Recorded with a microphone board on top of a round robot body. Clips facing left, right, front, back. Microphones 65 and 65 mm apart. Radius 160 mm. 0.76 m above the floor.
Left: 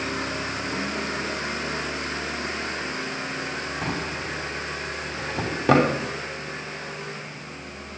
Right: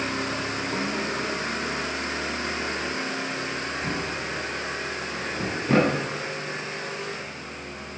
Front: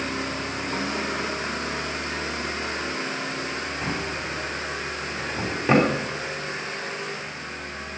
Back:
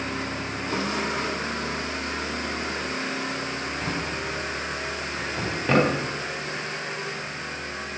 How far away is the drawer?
About 3 m.